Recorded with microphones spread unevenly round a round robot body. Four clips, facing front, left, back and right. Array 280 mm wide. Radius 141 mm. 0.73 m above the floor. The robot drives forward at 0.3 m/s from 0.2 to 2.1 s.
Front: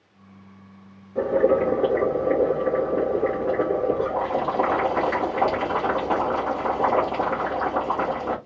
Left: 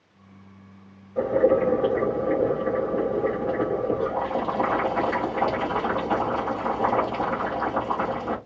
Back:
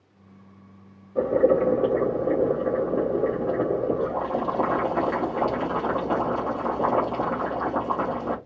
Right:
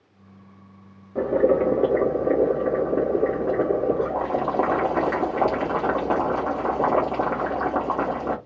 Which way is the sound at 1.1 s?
90° right.